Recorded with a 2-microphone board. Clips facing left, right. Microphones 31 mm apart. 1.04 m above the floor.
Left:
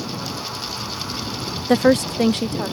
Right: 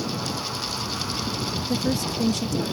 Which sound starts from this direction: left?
A woman speaking, at 1.7 s.